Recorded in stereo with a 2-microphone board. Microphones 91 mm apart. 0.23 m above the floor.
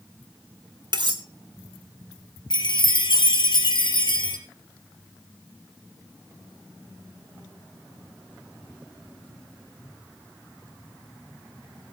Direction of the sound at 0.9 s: 55° right (ahead or behind).